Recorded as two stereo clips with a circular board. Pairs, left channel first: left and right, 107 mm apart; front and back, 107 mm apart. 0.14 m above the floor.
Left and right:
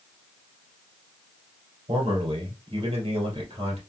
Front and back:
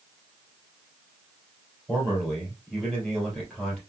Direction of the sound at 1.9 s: 85° right.